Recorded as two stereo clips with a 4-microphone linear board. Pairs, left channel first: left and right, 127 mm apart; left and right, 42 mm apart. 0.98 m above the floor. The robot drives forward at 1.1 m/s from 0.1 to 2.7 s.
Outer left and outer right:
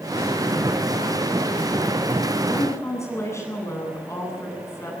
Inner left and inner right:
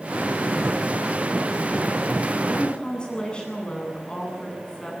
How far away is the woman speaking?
About 9 m.